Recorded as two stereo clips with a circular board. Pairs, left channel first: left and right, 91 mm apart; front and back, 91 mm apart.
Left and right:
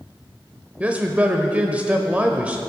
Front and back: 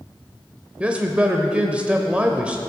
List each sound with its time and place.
0.8 s a man speaking: 130° right, 0.8 m